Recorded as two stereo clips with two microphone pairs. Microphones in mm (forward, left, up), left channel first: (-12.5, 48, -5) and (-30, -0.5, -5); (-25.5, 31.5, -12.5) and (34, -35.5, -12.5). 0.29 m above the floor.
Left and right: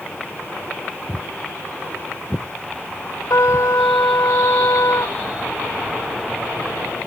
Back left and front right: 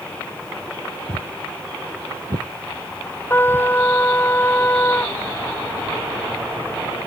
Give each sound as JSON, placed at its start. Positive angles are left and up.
{"t": 1.1, "sound": "footsteps", "azimuth_deg": -35}
{"t": 3.3, "sound": "a trumpet", "azimuth_deg": 65}